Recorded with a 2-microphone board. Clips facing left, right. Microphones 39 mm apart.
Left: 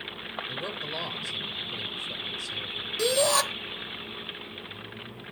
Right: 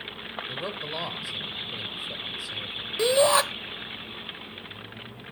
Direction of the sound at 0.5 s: 15° right (ahead or behind).